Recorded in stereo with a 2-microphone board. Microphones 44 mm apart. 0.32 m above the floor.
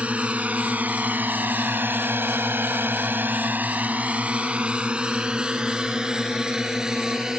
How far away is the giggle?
No giggle in this recording.